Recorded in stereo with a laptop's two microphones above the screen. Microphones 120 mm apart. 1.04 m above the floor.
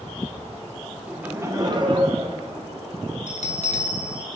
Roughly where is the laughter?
Centre.